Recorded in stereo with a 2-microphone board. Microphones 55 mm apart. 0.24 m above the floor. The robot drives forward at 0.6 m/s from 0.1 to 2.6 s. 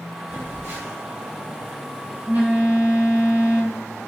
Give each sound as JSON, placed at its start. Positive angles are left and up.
{"t": 0.3, "sound": "a phone buzzing", "side_deg": -45, "distance_m": 3.0}